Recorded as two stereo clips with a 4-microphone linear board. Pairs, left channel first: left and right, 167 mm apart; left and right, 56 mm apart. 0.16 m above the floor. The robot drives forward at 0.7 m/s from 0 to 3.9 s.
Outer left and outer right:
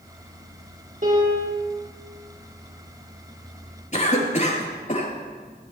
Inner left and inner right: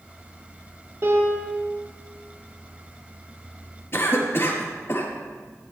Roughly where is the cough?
Left.